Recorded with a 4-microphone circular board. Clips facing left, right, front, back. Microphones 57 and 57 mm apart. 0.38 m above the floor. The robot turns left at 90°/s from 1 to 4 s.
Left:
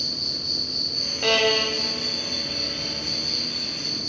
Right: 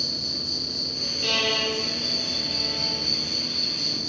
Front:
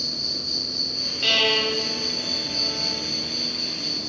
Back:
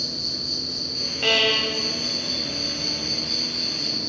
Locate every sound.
0.0 s an insect: 45° left, 1.7 m; by 4.1 s 135° left, 1.7 m
1.2 s a violin: 115° left, 0.6 m; by 3.0 s 45° right, 0.6 m